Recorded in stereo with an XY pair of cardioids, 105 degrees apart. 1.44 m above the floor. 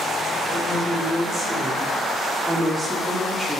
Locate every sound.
0.5 s a woman speaking: 25° right, 3.5 m; by 3.6 s 15° right, 2 m